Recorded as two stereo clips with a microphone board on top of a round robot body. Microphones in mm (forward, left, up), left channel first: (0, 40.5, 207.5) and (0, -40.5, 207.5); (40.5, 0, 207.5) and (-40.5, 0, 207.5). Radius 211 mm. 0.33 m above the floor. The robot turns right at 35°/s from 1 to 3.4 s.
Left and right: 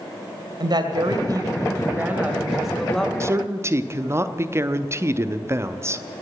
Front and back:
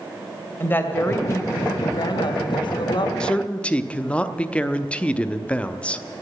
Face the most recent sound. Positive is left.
turn(degrees=-65)